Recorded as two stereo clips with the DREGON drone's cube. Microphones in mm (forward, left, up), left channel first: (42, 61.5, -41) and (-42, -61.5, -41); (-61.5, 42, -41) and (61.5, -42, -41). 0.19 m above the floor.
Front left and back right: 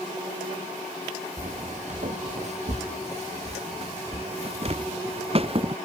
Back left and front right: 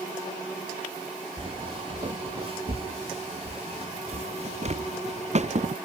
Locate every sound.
1.4 s footsteps: 85° right; by 5.8 s 75° right